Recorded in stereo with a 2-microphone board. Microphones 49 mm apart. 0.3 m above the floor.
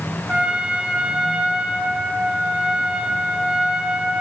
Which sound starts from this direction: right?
A trumpet, at 0.3 s.